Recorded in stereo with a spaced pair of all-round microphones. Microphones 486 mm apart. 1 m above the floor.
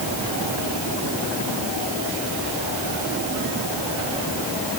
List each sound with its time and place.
Only background noise.